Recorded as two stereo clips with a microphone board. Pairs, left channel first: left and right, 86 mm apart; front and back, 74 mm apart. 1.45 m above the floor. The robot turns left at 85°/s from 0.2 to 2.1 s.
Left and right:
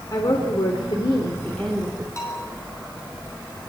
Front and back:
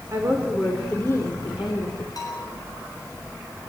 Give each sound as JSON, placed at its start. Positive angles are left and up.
{"t": 0.1, "sound": "a woman speaking", "azimuth_deg": 130, "distance_m": 4.0}
{"t": 2.2, "sound": "a bell", "azimuth_deg": 35, "distance_m": 8.0}